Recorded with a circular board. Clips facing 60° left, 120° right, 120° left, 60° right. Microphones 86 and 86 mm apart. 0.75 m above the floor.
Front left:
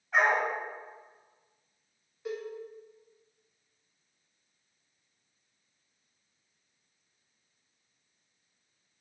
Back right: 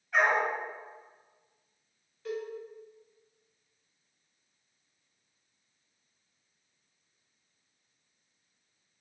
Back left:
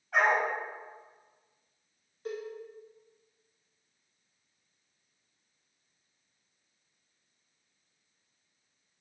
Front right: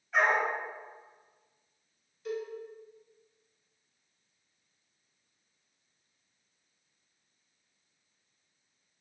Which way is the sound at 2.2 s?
120° left.